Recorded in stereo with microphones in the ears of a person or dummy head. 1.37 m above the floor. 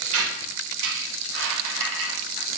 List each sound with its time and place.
0.1 s a squeak: 75° right (ahead or behind), 0.8 m